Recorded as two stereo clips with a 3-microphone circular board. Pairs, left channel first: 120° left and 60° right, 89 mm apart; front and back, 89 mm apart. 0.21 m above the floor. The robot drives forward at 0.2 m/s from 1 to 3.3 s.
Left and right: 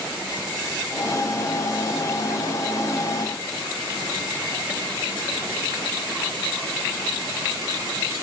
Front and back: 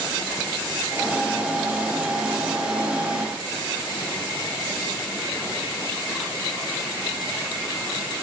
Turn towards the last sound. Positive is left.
No sound to turn to.